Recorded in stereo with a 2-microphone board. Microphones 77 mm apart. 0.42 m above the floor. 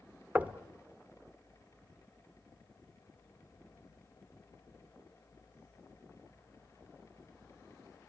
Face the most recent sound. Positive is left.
turn(degrees=-20)  # may be behind; listen again after turning